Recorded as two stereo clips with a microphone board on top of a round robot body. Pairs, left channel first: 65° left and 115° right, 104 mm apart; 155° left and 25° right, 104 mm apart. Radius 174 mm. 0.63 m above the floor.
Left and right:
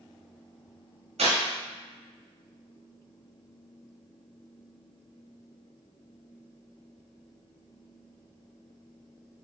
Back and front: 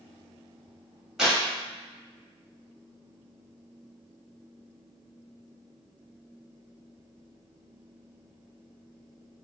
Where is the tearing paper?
110° right, 1.2 m.